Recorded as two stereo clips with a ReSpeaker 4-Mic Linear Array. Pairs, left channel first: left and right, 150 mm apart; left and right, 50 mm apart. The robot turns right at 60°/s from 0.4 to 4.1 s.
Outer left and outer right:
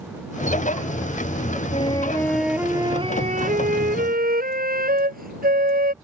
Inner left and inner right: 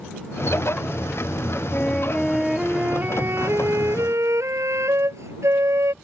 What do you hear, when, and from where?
1.7 s a flute: 140° left; by 5.9 s 80° right